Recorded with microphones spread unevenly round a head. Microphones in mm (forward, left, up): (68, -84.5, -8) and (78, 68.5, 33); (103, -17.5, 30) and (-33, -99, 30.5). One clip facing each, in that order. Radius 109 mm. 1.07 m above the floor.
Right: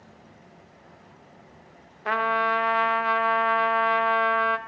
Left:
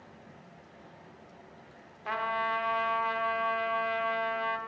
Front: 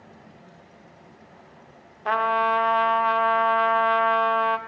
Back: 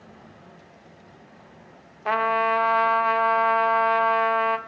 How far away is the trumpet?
About 1.1 m.